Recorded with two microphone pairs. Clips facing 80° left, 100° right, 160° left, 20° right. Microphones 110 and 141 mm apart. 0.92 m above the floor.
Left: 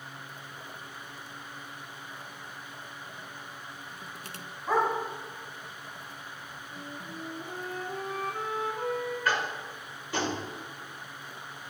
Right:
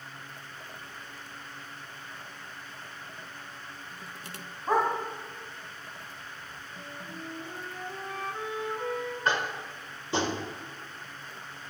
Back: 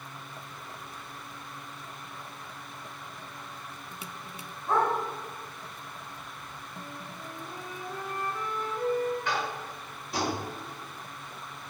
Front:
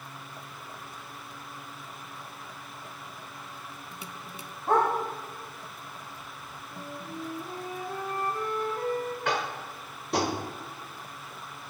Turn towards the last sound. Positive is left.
turn(degrees=-35)